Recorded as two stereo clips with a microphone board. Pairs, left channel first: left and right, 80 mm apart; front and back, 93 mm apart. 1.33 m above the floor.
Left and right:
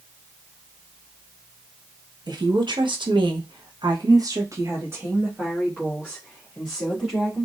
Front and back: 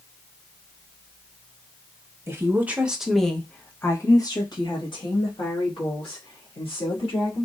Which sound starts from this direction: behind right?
A woman speaking, at 2.3 s.